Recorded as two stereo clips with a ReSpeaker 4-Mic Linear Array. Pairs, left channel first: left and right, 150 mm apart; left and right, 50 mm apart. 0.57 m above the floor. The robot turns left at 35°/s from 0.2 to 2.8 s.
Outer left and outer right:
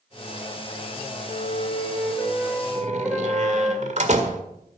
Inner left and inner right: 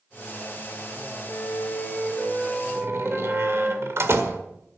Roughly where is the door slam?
Right.